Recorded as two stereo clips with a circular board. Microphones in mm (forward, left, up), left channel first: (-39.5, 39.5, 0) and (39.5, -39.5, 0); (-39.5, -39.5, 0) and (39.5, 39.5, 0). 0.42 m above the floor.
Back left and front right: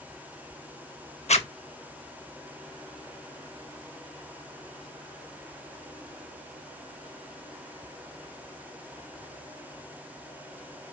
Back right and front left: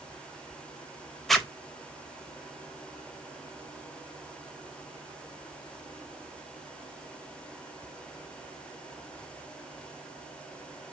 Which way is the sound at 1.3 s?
135° left.